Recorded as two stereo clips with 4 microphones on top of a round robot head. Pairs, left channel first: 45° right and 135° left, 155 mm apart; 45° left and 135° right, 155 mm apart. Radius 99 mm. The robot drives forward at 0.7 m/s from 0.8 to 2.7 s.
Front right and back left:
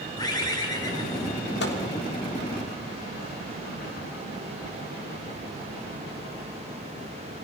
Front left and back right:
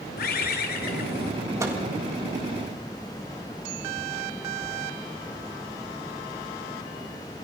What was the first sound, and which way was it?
A bird, 20° left.